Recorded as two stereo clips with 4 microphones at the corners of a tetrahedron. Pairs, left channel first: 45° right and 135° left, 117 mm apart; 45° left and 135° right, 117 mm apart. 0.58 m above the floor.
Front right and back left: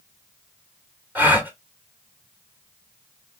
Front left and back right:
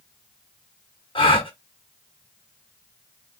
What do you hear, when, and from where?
1.1 s a gasp: 65° left, 1.2 m